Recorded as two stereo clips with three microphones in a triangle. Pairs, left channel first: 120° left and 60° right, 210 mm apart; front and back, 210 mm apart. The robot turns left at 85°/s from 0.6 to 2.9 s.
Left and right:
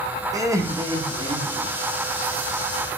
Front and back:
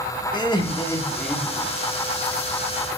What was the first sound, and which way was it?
Laughter, 15° right.